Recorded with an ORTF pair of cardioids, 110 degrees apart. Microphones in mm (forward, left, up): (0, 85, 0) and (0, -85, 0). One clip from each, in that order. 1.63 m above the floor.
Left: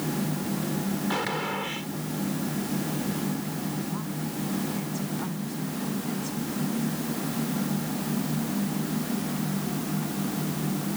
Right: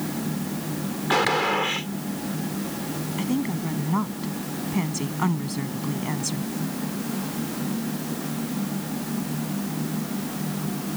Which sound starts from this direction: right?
A woman speaking, at 3.2 s.